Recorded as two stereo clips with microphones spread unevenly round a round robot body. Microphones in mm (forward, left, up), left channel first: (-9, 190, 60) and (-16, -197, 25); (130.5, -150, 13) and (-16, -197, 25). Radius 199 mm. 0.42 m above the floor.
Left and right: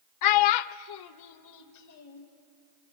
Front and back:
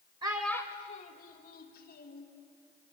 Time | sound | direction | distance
0.2 | a child speaking | 130° left | 0.7 m